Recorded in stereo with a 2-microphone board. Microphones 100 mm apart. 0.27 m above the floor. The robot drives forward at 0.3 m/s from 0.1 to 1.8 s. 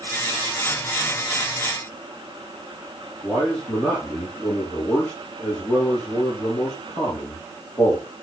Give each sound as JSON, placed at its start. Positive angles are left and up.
{"t": 3.2, "sound": "a man speaking", "side_deg": 25, "distance_m": 6.5}